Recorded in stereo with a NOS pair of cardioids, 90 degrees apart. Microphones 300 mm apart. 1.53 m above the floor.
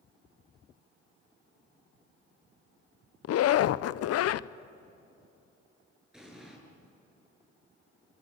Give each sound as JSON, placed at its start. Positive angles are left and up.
{"t": 3.2, "sound": "a zipper", "azimuth_deg": 60, "distance_m": 0.6}
{"t": 6.1, "sound": "an explosion", "azimuth_deg": 0, "distance_m": 8.5}